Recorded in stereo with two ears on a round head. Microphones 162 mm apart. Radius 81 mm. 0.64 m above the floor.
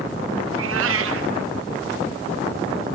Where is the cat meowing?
85° right, 0.6 m.